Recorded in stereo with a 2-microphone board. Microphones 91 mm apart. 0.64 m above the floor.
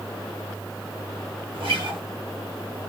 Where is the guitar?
85° right, 0.8 m.